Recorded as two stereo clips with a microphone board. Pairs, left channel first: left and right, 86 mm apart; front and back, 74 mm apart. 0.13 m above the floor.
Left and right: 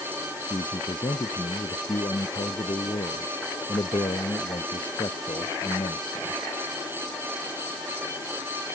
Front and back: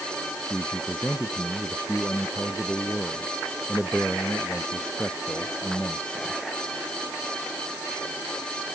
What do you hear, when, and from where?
0.5 s a man speaking: 75° left